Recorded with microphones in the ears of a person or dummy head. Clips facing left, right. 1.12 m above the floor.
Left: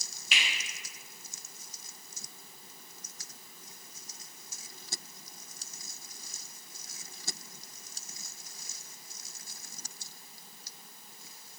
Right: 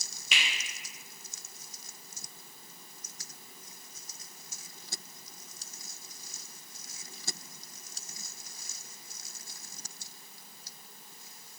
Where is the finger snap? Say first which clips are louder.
Even; 80° right, 1.1 m.